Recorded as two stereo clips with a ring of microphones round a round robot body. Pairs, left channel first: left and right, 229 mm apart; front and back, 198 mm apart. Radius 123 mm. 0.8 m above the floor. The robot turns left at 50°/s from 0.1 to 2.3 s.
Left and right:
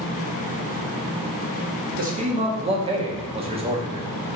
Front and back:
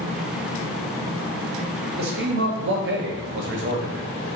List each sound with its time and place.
2.0 s a man speaking: 140° right, 1.0 m; by 4.4 s 155° right, 1.0 m